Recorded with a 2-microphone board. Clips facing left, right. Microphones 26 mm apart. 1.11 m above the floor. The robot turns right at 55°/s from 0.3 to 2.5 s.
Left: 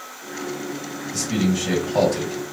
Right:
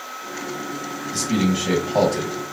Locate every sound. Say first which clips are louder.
1.1 s a man speaking: right 1 dB; 60° right, 0.9 m; by 2.4 s 10° left, 0.9 m